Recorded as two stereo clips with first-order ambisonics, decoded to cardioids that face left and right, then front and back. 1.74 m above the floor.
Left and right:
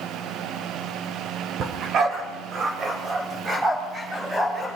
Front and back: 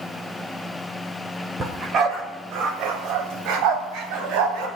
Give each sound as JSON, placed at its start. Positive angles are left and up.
{"t": 1.6, "sound": "a dog barking", "azimuth_deg": -120, "distance_m": 2.0}